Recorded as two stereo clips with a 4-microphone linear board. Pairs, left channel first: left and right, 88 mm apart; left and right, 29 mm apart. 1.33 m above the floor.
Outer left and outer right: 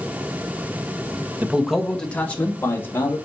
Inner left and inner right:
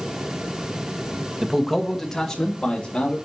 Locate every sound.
1.4 s a man speaking: 20° right (ahead or behind), 1.2 m; by 3.2 s 30° left (ahead or behind), 3.5 m